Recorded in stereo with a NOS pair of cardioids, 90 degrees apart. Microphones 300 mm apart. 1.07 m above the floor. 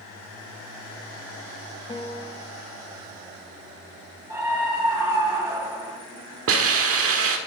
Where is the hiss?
50° right, 1.4 m.